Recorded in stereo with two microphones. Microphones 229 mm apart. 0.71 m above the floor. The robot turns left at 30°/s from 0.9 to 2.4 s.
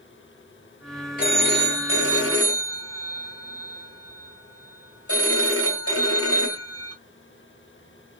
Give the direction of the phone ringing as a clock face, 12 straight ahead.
7 o'clock.